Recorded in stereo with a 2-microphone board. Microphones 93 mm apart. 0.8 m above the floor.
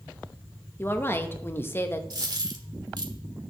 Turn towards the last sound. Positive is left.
turn(degrees=-50)  # may be behind; listen again after turning